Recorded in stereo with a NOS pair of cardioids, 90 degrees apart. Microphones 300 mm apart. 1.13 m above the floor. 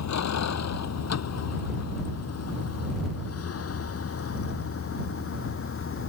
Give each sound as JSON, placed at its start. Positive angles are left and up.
{"t": 0.0, "sound": "a vehicle", "azimuth_deg": 55}